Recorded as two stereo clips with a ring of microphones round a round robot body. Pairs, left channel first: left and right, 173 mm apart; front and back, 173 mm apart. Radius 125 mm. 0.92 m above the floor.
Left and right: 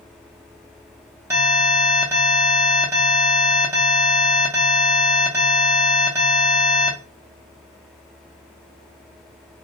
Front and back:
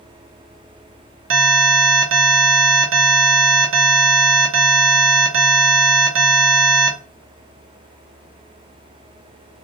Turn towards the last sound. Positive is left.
turn(degrees=-170)